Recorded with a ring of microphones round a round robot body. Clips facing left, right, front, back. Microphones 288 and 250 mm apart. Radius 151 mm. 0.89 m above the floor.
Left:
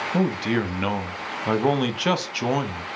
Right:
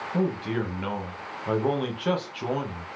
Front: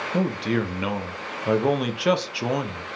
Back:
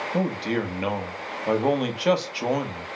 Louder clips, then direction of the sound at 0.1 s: Left 4 dB, front 2 dB; 80° left.